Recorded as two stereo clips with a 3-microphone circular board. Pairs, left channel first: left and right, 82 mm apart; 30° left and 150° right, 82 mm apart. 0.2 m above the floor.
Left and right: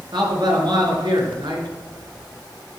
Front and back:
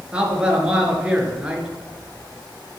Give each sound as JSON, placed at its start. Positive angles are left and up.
{"t": 0.1, "sound": "a man speaking", "azimuth_deg": -75, "distance_m": 4.0}